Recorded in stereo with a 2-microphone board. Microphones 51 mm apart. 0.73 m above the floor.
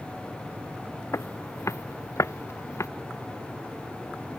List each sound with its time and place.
1.1 s footsteps: 75° left (ahead or behind)